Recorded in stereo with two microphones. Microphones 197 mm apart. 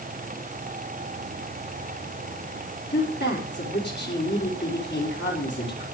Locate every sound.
2.9 s a woman speaking: 60° left (ahead or behind), 5 m